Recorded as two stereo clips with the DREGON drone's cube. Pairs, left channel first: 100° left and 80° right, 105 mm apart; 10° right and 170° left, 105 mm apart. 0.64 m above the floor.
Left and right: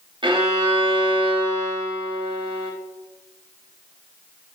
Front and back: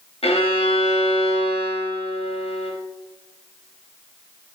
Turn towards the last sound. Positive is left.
turn(degrees=-35)